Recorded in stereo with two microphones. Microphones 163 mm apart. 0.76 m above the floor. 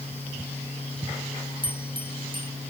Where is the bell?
30° right (ahead or behind).